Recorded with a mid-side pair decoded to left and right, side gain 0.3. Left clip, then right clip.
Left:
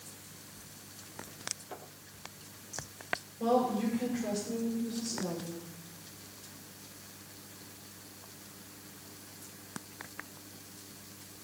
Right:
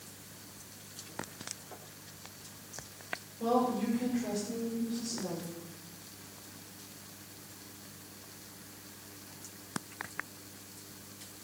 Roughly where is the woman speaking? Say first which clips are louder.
Left 1 dB; ahead left.